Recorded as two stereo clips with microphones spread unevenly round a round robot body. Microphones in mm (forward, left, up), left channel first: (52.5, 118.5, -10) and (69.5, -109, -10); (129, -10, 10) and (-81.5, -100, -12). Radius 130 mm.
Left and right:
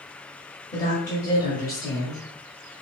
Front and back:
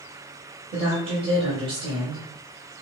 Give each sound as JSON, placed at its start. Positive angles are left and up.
{"t": 0.7, "sound": "a woman speaking", "azimuth_deg": 160, "distance_m": 1.3}